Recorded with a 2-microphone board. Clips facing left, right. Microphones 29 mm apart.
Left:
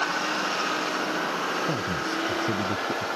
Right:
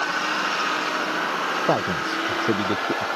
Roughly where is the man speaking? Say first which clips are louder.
Right 5 dB; right.